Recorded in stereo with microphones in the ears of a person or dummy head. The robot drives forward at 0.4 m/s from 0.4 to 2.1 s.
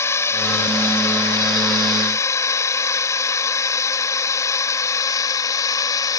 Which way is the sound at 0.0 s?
10° left (ahead or behind).